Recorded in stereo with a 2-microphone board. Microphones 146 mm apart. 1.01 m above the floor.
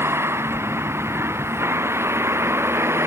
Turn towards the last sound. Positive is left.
turn(degrees=-15)  # may be behind; listen again after turning